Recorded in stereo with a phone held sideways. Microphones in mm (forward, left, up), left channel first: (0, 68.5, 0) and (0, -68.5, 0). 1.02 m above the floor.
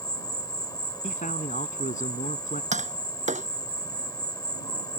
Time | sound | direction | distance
0.0 | an insect | 25° left (ahead or behind) | ?
1.0 | a man speaking | 70° left (ahead or behind) | ?
2.7 | tapping | 60° right (ahead or behind) | ?